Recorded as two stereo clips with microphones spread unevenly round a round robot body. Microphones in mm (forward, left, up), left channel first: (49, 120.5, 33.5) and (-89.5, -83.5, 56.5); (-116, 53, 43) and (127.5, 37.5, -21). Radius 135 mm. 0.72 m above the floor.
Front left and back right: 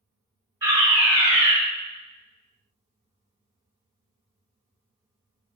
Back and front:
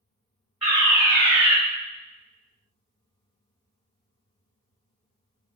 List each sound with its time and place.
0.6 s a fire alarm: 55° right, 1.8 m